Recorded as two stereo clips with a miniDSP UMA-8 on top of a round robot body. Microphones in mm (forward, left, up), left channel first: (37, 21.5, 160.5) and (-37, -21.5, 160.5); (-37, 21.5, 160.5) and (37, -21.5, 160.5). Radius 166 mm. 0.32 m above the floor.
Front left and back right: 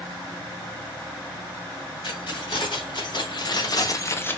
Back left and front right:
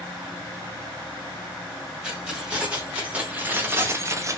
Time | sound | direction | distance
2.0 | keys jangling | 50° left | 1.4 m